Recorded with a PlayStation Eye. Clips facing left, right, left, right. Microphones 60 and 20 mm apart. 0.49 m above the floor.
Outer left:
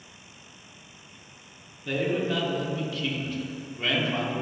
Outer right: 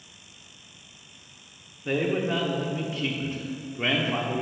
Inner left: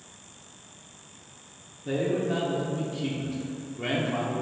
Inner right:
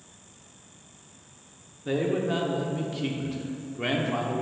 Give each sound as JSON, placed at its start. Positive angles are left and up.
{"t": 1.9, "sound": "a man speaking", "side_deg": -25, "distance_m": 0.7}